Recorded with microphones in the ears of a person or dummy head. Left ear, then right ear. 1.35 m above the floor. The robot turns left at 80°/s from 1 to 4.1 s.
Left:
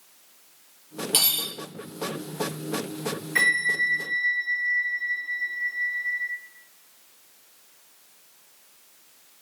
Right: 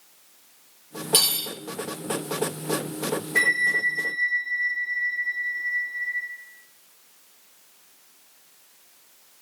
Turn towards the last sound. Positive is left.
turn(degrees=-30)